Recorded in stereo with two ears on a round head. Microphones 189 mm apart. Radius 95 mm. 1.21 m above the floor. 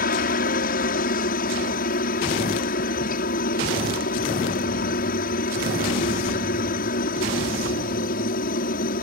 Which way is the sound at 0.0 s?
45° left (ahead or behind).